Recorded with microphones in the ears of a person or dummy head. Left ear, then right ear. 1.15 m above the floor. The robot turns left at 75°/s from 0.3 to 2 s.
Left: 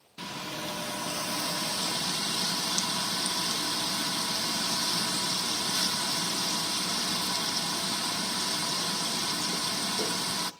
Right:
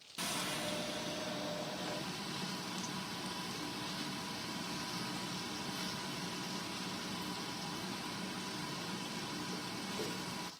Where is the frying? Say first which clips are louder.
Left 2 dB; 175° right, 1.0 m; by 10.5 s 60° left, 1.0 m.